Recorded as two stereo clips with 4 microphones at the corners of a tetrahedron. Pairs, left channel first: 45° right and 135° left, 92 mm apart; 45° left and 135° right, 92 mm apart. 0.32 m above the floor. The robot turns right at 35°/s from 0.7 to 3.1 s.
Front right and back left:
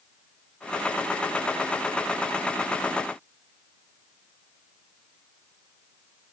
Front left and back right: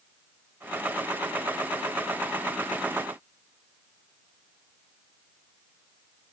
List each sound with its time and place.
Only background noise.